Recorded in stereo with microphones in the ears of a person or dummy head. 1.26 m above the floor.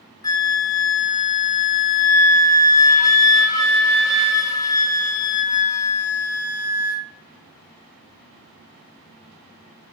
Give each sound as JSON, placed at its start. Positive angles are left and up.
{"t": 0.2, "sound": "a flute", "side_deg": 20, "distance_m": 0.5}